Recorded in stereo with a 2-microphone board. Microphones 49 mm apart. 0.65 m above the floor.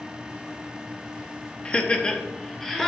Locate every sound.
1.6 s laughter: 20° left (ahead or behind), 0.6 m; by 2.9 s 10° left (ahead or behind), 1.6 m